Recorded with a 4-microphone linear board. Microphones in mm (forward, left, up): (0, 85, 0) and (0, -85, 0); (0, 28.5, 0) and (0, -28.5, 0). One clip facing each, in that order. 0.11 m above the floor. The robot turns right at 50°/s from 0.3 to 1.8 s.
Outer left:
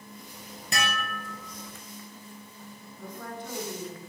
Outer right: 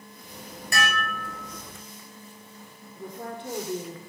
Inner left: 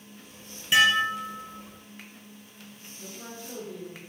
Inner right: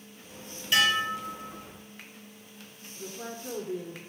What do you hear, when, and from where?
0.7 s dishes clattering: 25° left, 1.4 m; by 1.6 s 70° left, 1.4 m
3.0 s a woman speaking: 25° right (ahead or behind), 1.2 m